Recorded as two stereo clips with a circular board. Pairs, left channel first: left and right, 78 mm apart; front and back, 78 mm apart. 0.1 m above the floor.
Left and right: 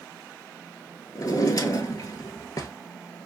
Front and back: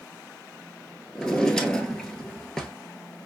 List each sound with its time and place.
1.1 s a drawer: 80° left, 0.8 m